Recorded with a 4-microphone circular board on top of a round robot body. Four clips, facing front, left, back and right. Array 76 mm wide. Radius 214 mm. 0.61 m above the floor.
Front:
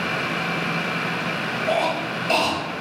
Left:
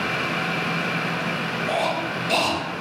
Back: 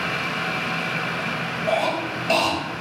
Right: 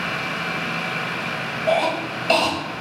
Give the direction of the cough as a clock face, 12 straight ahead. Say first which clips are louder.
Right 5 dB, back 1 dB; 3 o'clock.